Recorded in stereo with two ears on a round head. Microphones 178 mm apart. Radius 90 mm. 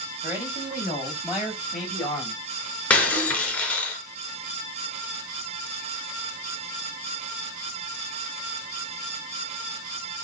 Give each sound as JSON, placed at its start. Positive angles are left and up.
{"t": 0.2, "sound": "a man speaking", "side_deg": -10, "distance_m": 5.5}
{"t": 2.9, "sound": "breaking glass", "side_deg": 5, "distance_m": 3.5}